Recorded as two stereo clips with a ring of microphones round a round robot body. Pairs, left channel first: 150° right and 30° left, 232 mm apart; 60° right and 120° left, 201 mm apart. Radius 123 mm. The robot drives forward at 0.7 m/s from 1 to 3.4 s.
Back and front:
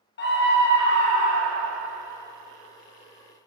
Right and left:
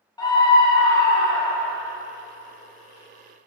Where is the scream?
125° right, 1.0 m; by 1.8 s 150° right, 1.3 m.